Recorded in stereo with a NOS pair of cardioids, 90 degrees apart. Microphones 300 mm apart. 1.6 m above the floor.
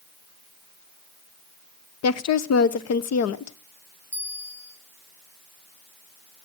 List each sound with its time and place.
2.0 s a woman speaking: 60° left, 1.0 m
4.1 s a bell: 5° left, 3 m